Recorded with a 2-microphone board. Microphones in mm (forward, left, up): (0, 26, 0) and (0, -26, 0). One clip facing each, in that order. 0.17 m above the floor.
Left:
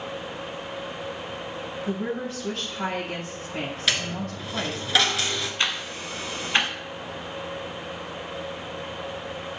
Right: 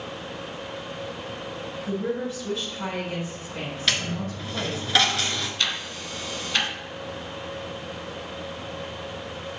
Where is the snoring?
No snoring in this recording.